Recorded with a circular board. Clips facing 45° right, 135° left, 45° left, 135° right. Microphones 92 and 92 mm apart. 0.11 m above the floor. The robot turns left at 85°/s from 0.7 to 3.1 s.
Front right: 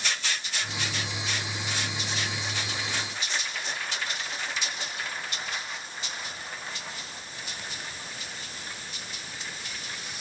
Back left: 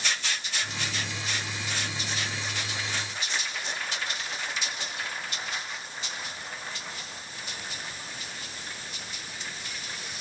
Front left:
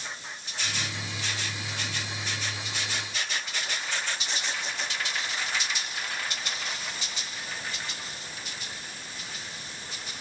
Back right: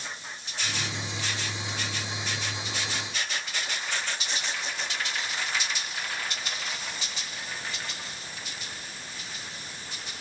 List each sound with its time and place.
Only background noise.